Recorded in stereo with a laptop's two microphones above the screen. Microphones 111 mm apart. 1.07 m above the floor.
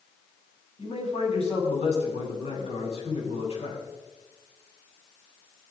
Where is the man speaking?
65° left (ahead or behind), 7 m.